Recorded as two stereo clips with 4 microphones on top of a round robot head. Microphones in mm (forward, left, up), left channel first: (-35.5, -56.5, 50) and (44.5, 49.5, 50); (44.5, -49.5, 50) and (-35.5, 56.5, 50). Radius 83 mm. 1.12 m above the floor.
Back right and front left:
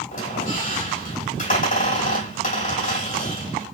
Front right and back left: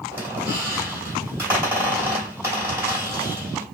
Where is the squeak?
160° right, 3 m.